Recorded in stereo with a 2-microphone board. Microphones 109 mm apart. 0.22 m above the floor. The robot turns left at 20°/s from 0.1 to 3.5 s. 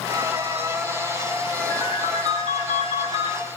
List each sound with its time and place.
1.7 s a ringtone: 125° left, 4 m; by 3.3 s 90° left, 4 m